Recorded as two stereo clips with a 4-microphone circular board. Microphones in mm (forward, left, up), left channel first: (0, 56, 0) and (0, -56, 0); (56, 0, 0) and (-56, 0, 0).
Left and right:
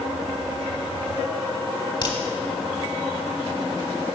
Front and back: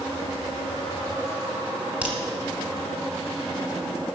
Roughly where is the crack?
Left.